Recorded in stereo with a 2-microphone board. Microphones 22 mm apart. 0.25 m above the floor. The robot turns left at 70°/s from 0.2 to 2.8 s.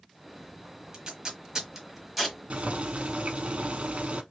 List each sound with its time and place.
0.9 s tape being pulled: 35° right (ahead or behind), 1.4 m; by 2.4 s 5° left (ahead or behind), 1.4 m
2.5 s boiling: 70° right (ahead or behind), 0.6 m